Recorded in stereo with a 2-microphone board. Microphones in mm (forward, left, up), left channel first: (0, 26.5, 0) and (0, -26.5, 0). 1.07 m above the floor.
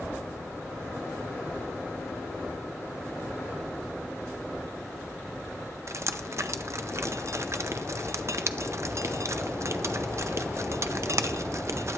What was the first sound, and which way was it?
Dripping, 55° right (ahead or behind).